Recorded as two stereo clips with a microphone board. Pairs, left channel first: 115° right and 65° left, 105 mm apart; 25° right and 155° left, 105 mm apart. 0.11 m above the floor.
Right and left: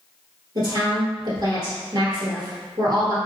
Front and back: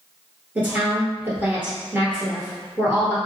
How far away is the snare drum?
No snare drum in this recording.